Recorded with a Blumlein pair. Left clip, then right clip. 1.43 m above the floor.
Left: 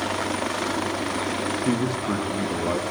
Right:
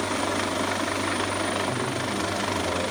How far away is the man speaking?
About 1.2 m.